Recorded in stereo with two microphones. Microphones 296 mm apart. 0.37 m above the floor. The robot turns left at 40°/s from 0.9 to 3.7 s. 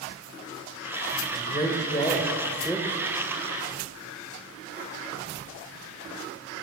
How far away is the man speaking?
About 1.2 m.